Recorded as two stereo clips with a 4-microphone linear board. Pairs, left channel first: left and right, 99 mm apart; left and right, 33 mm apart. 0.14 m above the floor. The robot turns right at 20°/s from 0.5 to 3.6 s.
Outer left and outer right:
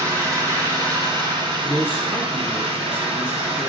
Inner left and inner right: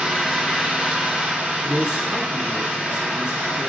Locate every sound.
0.0 s an engine running: 145° right, 1.1 m; by 3.7 s 85° right, 1.1 m
1.6 s a man speaking: 15° right (ahead or behind), 1.1 m; by 3.7 s 20° right (ahead or behind), 1.1 m